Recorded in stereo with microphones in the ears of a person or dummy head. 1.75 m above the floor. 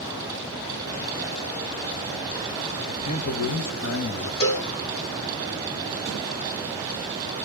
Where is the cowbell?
55° left (ahead or behind), 3.5 m.